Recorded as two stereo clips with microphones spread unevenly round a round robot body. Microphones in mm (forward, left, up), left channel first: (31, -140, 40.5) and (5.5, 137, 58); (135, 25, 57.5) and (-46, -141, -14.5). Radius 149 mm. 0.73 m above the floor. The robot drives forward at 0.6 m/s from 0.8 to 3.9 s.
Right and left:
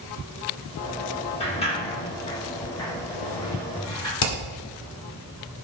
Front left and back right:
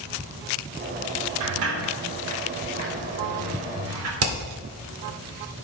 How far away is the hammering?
About 1.8 m.